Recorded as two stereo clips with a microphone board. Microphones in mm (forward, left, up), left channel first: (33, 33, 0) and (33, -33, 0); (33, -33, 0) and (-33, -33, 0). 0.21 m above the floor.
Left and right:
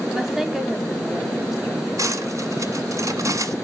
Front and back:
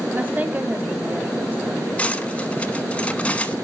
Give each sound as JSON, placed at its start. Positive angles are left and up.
{"t": 0.1, "sound": "a woman speaking", "azimuth_deg": -165, "distance_m": 1.0}
{"t": 2.0, "sound": "cutlery clinking", "azimuth_deg": -65, "distance_m": 1.1}